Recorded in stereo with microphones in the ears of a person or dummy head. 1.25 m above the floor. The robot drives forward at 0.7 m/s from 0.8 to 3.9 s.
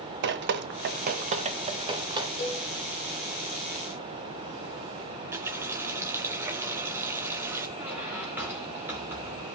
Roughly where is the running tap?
Centre.